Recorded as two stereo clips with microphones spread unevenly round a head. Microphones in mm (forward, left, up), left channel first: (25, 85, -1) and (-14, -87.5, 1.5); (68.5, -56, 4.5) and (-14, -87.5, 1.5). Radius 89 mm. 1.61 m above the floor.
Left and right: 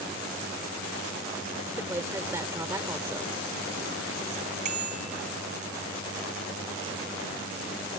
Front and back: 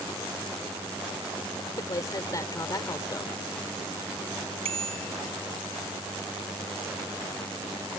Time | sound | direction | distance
1.8 | a woman speaking | 30° right | ?
4.7 | a bicycle bell | 155° right | ?